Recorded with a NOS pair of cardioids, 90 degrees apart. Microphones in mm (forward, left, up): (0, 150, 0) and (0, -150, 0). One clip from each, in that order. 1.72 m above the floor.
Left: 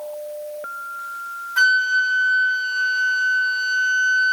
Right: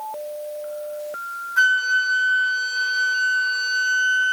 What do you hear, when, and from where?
1.6 s a flute: 40° left, 1.5 m